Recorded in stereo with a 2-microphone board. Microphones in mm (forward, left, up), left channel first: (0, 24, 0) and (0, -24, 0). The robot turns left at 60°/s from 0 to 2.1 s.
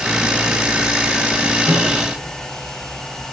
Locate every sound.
1.6 s a microwave: 65° right (ahead or behind), 4.5 m; by 1.9 s 75° right (ahead or behind), 4.5 m